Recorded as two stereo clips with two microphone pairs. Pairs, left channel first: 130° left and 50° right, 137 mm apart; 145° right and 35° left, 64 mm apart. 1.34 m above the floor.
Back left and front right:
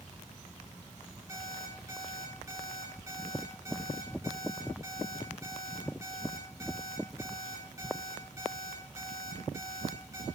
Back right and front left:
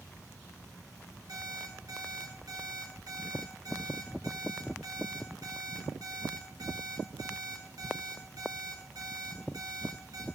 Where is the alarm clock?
15° left, 8.5 m.